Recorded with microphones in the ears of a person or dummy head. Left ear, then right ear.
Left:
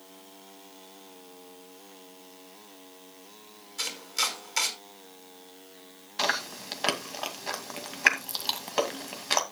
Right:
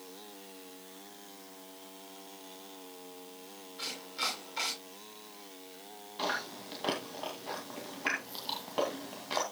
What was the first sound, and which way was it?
Chopping, 75° left (ahead or behind).